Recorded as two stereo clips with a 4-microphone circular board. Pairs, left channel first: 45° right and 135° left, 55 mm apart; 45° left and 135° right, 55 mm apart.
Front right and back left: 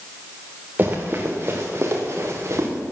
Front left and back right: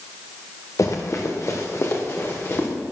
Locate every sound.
0.8 s running footsteps: 80° left, 3.5 m; by 2.7 s 95° left, 4 m